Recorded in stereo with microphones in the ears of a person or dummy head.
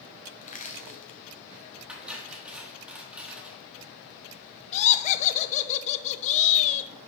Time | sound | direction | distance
0.4 | crushing | 40° left (ahead or behind) | 0.7 m
1.9 | cutlery clinking | 10° right (ahead or behind) | 1.5 m
4.7 | laughter | 40° left (ahead or behind) | 0.7 m